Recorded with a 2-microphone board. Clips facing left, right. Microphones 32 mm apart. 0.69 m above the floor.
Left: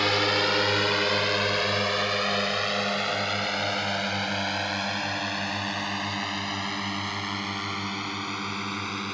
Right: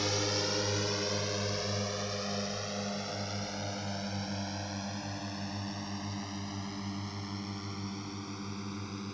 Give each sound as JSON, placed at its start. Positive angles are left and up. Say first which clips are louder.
{"t": 0.0, "sound": "a drone", "louder": "left 10 dB", "side_deg": 60}